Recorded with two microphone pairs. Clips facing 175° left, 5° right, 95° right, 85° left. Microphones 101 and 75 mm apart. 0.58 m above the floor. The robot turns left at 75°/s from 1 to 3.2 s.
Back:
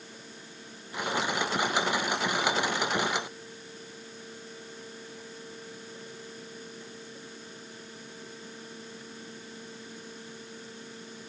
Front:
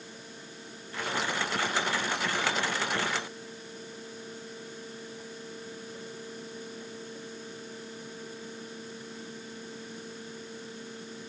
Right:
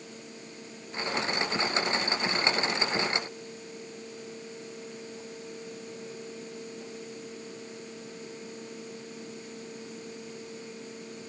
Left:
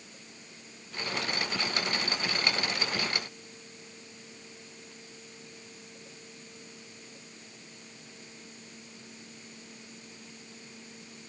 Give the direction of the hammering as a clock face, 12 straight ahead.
I don't hear hammering.